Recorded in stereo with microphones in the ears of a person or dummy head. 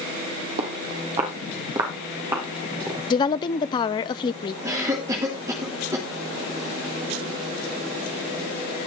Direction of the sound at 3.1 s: 25° left (ahead or behind).